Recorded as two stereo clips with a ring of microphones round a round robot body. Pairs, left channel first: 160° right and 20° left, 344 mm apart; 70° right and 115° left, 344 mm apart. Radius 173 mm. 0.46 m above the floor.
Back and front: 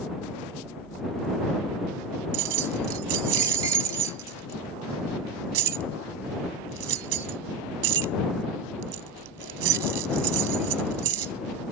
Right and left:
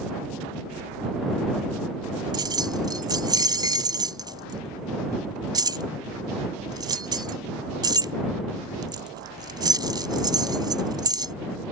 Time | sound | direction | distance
2.3 | keys jangling | 35° left | ?